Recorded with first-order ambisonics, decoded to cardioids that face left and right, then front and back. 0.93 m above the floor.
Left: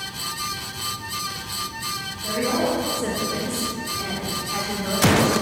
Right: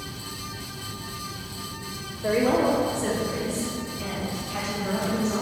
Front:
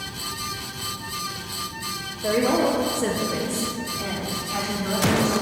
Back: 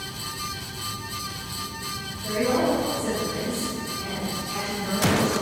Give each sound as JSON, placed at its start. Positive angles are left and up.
{"t": 2.2, "sound": "a woman speaking", "azimuth_deg": -35, "distance_m": 1.1}